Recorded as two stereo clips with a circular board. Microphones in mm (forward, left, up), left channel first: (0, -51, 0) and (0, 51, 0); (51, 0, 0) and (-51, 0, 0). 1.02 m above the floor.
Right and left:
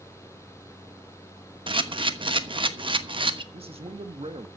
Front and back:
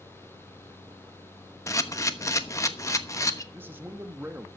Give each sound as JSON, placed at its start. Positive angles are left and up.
{"t": 1.7, "sound": "a camera shutter", "azimuth_deg": 60, "distance_m": 1.1}
{"t": 3.5, "sound": "a man speaking", "azimuth_deg": 110, "distance_m": 1.3}